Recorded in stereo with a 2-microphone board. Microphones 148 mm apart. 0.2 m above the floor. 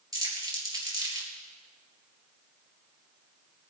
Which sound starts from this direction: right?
Crumpling, at 0.1 s.